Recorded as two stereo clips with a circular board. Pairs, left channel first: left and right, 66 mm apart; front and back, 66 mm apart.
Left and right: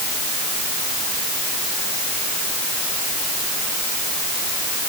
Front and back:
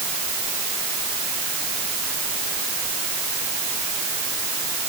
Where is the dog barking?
I don't hear a dog barking.